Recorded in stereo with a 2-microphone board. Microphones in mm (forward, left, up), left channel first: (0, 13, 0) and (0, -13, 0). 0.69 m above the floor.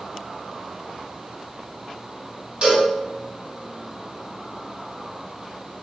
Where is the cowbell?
40° right (ahead or behind), 1.7 m.